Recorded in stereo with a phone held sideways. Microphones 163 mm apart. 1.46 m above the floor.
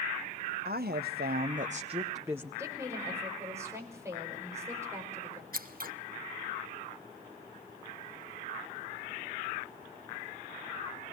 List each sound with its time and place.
0.7 s a woman speaking: 70° right (ahead or behind), 0.9 m; by 2.5 s 10° right (ahead or behind), 0.8 m
2.6 s a woman speaking: 15° right (ahead or behind), 5 m
5.5 s scissors: 60° right (ahead or behind), 0.9 m